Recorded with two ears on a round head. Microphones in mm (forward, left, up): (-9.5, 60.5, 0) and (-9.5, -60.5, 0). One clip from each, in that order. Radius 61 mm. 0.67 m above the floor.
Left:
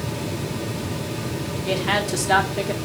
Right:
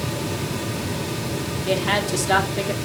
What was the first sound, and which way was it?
A woman speaking, 5° right (ahead or behind).